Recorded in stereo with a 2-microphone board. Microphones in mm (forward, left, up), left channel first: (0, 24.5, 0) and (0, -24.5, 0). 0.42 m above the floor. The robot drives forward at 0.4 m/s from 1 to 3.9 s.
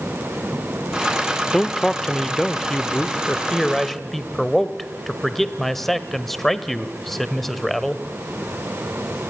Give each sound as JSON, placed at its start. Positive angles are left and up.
{"t": 1.5, "sound": "a man speaking", "side_deg": 5, "distance_m": 0.7}